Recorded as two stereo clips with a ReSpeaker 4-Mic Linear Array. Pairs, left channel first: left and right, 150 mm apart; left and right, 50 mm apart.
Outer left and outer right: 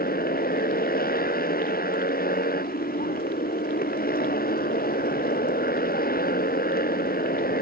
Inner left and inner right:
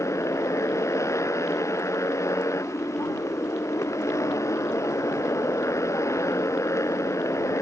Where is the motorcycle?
90° left.